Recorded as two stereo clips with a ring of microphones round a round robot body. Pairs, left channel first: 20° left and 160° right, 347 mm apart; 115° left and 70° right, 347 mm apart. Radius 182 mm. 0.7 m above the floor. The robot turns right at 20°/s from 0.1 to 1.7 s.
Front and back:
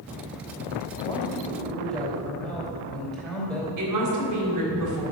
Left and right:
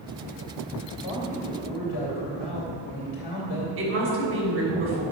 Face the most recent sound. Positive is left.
turn(degrees=-120)